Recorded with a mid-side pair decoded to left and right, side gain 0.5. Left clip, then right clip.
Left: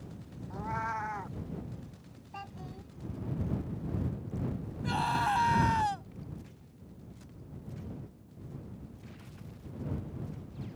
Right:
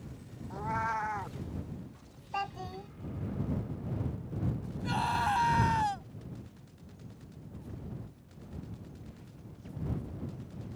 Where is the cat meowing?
15° right.